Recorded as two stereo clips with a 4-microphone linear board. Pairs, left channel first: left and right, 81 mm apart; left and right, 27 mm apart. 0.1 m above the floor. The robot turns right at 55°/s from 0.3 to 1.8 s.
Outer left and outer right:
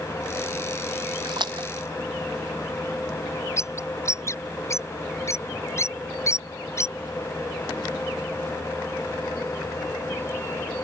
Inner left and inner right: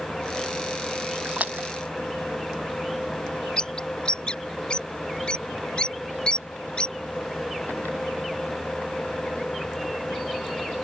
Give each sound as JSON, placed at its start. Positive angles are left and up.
{"t": 1.2, "sound": "a splash", "side_deg": -70}
{"t": 3.6, "sound": "a bird", "side_deg": 35}